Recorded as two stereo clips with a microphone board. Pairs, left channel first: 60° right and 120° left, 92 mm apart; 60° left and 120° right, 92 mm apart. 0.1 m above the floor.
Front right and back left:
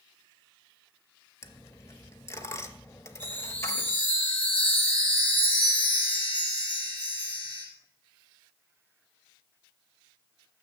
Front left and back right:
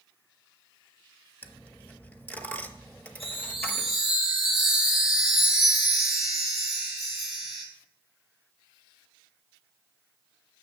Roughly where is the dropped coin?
Ahead.